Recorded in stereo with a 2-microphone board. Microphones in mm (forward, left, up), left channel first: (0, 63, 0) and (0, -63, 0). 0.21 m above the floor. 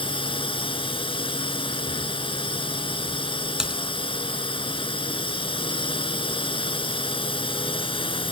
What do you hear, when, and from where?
0.0 s a drone: 45° left (ahead or behind)
3.6 s typing on a keyboard: 5° right (ahead or behind)